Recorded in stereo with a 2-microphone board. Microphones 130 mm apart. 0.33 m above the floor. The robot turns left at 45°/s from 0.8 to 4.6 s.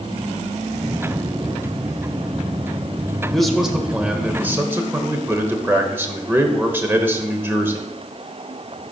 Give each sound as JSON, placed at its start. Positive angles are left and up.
{"t": 3.3, "sound": "a man speaking", "side_deg": 5, "distance_m": 1.0}